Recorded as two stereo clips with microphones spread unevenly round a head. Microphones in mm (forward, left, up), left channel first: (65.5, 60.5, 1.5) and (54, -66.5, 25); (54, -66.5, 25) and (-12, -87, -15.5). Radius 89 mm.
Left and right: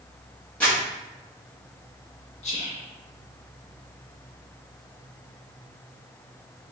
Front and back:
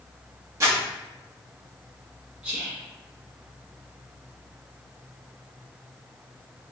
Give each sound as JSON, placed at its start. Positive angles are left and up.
{"t": 0.6, "sound": "crumpling", "azimuth_deg": 165, "distance_m": 1.3}
{"t": 2.4, "sound": "whispering", "azimuth_deg": 125, "distance_m": 1.0}